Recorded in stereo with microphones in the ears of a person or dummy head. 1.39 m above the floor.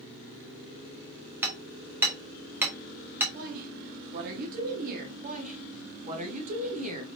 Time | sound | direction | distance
1.4 | hammering | 10° right (ahead or behind) | 1.1 m
3.3 | a woman speaking | 50° right (ahead or behind) | 1.1 m
5.2 | a woman speaking | 40° right (ahead or behind) | 1.0 m